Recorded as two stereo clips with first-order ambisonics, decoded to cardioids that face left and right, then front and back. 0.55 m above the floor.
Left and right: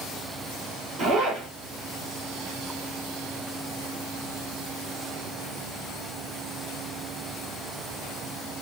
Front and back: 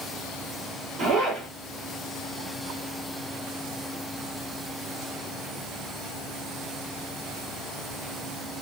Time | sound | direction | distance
1.0 | a zipper | 135° right | 1.2 m